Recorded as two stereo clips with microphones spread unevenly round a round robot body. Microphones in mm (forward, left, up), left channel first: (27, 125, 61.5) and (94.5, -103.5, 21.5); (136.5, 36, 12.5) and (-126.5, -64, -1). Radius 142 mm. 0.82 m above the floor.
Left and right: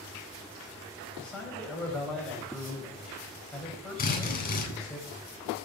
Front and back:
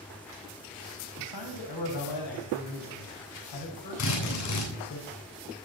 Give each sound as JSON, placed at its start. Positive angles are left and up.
{"t": 1.2, "sound": "a man speaking", "azimuth_deg": 20, "distance_m": 5.0}
{"t": 4.0, "sound": "a drill", "azimuth_deg": 55, "distance_m": 9.5}